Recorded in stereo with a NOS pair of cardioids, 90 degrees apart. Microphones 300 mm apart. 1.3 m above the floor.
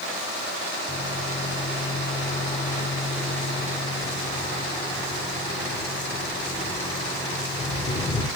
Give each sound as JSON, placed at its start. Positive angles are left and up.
{"t": 0.9, "sound": "a microwave", "azimuth_deg": 15, "distance_m": 4.5}